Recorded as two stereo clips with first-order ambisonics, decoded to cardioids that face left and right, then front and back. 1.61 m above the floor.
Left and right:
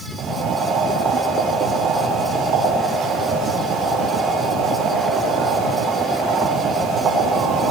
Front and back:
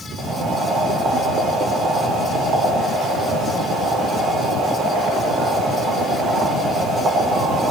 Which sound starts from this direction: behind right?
Boiling, at 0.2 s.